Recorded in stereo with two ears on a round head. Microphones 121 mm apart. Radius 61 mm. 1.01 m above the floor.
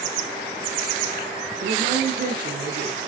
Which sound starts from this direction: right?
A woman speaking, at 1.6 s.